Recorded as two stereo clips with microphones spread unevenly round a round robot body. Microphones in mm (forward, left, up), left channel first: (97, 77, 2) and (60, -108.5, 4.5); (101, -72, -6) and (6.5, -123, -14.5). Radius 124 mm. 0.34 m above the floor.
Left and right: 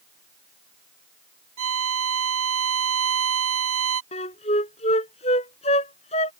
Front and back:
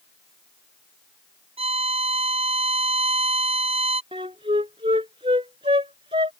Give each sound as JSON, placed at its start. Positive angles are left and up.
{"t": 1.6, "sound": "a violin", "azimuth_deg": -125}
{"t": 4.1, "sound": "a flute", "azimuth_deg": 145}